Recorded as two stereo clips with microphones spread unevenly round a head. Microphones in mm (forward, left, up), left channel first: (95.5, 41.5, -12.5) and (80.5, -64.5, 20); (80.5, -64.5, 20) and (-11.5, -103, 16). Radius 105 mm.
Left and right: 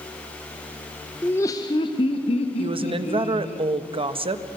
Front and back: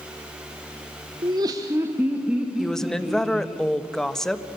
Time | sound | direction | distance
1.2 | laughter | 155° left | 1.1 m
2.6 | a woman speaking | 60° right | 1.3 m